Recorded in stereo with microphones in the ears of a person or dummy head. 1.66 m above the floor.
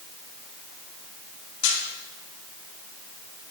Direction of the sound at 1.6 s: 65° left (ahead or behind).